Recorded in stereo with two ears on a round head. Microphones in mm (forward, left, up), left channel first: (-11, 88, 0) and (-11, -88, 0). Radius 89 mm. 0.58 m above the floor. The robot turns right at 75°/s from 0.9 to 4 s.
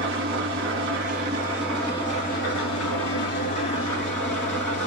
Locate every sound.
0.0 s an engine running: 65° right, 2 m; by 4.9 s 170° left, 2 m